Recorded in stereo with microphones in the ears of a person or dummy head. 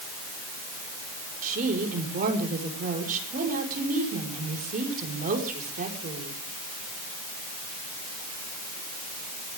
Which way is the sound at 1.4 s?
45° right (ahead or behind).